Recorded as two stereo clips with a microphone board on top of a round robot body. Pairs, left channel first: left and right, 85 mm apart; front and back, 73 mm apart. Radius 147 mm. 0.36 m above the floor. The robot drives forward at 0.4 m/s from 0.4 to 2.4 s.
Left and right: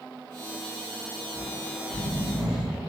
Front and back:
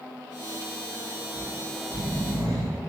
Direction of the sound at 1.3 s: 170° right.